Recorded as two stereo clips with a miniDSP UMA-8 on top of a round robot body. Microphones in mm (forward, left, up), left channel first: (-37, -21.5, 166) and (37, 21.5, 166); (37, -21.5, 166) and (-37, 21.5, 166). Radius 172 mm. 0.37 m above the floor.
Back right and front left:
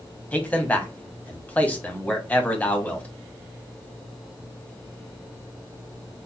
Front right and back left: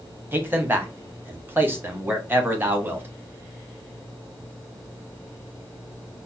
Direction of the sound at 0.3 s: 170° left.